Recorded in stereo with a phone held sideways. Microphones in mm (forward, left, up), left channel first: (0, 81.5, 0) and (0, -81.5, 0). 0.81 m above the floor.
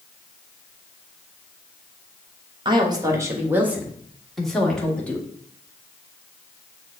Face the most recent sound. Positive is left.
turn(degrees=10)  # may be behind; listen again after turning